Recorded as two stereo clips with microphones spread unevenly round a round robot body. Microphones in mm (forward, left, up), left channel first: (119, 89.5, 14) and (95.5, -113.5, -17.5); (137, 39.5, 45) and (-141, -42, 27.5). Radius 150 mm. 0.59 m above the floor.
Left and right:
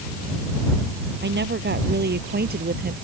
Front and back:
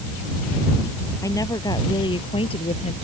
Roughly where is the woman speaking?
Ahead right.